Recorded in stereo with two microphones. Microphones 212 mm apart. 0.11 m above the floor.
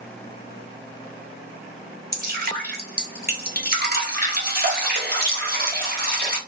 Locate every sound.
2.1 s dripping: 45° right (ahead or behind), 1.0 m